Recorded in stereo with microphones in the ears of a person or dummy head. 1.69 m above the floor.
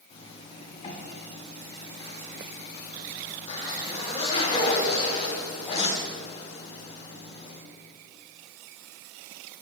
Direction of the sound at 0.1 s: 30° left (ahead or behind).